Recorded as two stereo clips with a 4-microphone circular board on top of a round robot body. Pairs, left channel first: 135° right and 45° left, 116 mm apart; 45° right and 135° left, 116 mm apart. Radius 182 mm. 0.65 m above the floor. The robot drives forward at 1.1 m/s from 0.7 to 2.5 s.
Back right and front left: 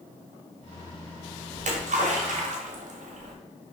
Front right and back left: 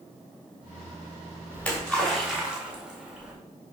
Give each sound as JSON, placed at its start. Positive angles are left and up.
{"t": 1.5, "sound": "a splash", "azimuth_deg": 35, "distance_m": 2.5}